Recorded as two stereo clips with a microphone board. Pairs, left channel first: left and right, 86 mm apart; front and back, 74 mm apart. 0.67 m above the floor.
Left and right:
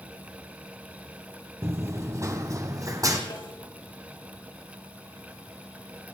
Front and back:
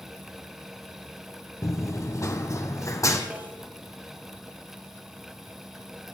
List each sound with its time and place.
1.6 s running footsteps: 35° right, 1.0 m; by 3.2 s 45° right, 2 m
3.3 s a snare drum: 115° left, 5.5 m